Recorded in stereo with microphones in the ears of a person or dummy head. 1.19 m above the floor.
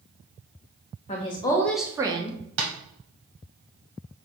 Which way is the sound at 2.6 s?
80° right.